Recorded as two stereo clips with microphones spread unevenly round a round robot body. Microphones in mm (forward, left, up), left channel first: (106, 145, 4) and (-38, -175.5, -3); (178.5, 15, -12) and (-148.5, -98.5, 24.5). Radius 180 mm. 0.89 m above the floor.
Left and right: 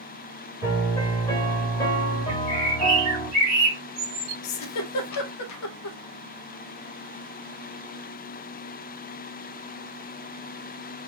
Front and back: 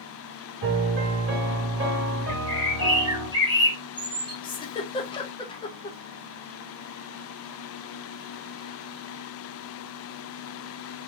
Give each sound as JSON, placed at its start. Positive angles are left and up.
{"t": 0.6, "sound": "a piano", "azimuth_deg": 145, "distance_m": 1.3}
{"t": 2.3, "sound": "a bird", "azimuth_deg": -80, "distance_m": 1.6}
{"t": 4.4, "sound": "a giggle", "azimuth_deg": 80, "distance_m": 0.6}